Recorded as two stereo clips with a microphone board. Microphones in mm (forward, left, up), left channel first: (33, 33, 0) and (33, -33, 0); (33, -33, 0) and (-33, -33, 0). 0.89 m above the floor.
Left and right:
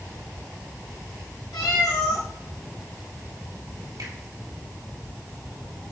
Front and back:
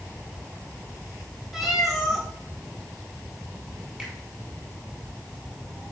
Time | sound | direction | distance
1.5 | a cat meowing | 90° left | 2.5 m
4.0 | a finger snap | 110° right | 4 m